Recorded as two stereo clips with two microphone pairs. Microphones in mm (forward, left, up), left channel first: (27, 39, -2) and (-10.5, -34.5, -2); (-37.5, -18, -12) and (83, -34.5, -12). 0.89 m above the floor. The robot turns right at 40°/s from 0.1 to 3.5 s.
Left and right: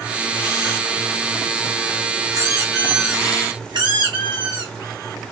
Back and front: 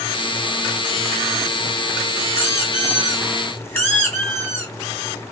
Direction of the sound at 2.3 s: 160° right.